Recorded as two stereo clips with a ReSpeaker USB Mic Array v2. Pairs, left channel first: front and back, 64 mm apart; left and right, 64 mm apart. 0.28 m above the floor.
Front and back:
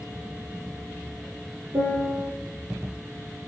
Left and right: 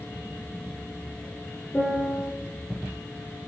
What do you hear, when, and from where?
1.7 s a piano: 155° left, 3.5 m